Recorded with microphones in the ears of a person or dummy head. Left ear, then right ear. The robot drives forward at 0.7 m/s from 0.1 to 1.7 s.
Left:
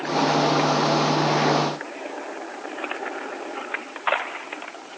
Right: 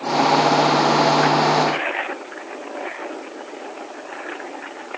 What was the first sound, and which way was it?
Only background noise.